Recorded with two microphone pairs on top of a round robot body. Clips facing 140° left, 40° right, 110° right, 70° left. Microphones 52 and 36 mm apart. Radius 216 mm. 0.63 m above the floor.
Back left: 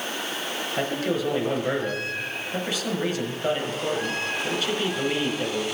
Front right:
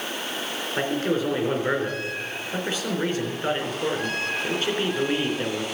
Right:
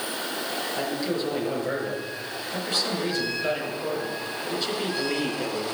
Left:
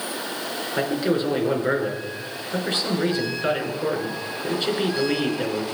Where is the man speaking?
15° left, 4 m.